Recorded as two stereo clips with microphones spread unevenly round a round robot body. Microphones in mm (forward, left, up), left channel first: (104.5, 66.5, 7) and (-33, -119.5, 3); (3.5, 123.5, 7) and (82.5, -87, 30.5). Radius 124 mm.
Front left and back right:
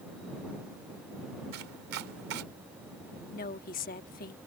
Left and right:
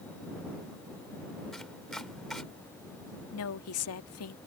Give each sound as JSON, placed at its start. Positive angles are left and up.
{"t": 1.5, "sound": "chopping", "azimuth_deg": -160}
{"t": 3.3, "sound": "a woman speaking", "azimuth_deg": 110}